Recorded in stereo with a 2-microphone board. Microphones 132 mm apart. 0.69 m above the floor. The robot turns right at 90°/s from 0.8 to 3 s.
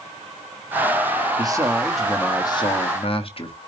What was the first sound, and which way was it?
A man speaking, 55° right.